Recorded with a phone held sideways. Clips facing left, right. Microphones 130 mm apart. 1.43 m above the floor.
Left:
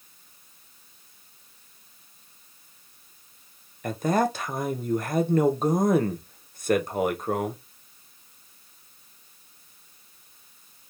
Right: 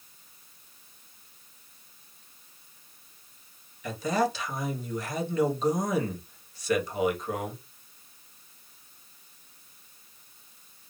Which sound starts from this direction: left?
A man speaking, at 3.8 s.